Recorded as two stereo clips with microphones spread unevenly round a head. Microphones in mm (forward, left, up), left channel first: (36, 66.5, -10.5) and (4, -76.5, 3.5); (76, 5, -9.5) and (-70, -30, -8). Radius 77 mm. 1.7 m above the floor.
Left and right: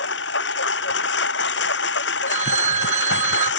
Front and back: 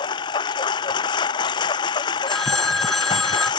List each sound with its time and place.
0.0 s a lawn mower: 80° left
2.3 s a phone ringing: 75° right